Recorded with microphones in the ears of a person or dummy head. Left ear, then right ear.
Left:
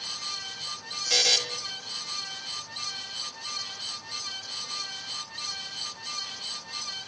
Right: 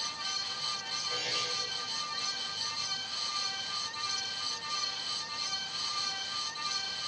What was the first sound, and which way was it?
A buzzer, 75° left (ahead or behind).